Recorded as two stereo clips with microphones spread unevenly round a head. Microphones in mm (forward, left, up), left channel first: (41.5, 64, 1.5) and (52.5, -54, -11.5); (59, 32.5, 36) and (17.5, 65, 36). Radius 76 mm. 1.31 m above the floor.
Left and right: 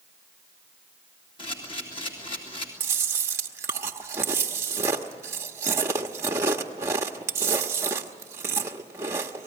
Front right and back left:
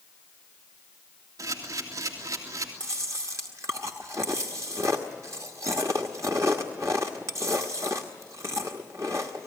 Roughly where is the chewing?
Behind right.